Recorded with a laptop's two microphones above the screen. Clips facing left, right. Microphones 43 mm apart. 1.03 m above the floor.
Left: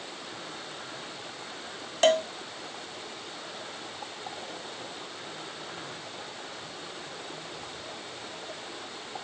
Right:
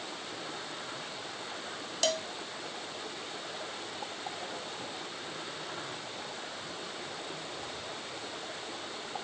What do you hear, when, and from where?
2.0 s a cowbell: 40° left (ahead or behind)